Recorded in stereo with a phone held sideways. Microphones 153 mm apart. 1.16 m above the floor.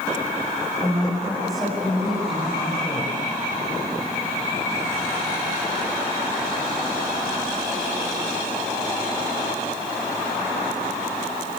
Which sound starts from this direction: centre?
A woman speaking, at 0.8 s.